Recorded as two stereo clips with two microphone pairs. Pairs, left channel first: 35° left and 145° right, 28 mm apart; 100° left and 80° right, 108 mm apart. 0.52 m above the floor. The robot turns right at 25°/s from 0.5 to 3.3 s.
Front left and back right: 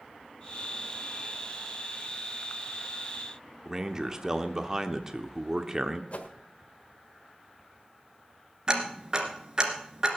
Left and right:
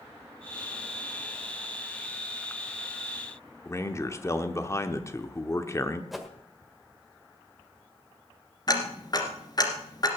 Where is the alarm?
I don't hear an alarm.